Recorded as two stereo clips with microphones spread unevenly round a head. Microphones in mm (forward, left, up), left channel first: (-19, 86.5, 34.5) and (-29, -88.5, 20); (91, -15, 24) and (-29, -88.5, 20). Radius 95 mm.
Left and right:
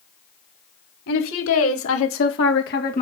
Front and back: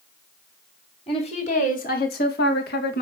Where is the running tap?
No running tap in this recording.